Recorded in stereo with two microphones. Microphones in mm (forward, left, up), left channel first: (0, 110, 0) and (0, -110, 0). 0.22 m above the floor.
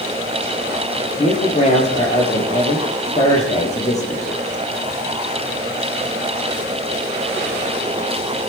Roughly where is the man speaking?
Left.